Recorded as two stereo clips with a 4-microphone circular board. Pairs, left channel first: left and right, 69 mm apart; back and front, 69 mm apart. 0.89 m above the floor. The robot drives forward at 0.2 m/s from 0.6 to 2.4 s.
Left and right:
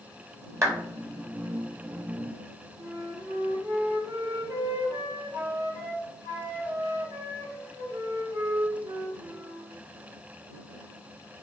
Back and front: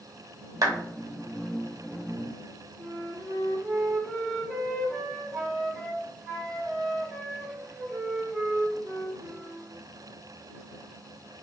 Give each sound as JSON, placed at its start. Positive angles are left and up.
{"t": 0.6, "sound": "a clap", "azimuth_deg": -40, "distance_m": 1.2}
{"t": 2.8, "sound": "a flute", "azimuth_deg": -90, "distance_m": 1.1}